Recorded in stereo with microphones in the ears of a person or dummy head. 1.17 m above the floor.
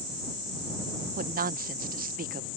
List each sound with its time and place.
1.2 s a woman speaking: 45° right (ahead or behind)